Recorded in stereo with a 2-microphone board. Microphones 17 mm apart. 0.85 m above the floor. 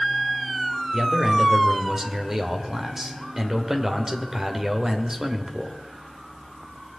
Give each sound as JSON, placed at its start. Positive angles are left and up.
{"t": 0.9, "sound": "a man speaking", "side_deg": -25, "distance_m": 2.5}